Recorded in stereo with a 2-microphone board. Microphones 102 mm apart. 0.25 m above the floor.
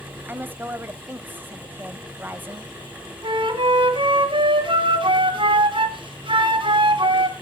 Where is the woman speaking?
20° right (ahead or behind), 0.9 m.